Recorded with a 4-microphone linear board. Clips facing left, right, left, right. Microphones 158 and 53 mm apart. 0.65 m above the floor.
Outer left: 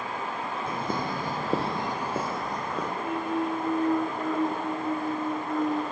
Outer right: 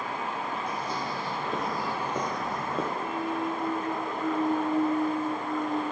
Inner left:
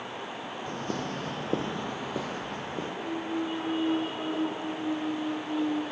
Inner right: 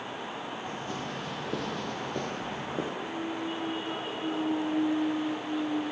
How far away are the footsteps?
About 1.3 m.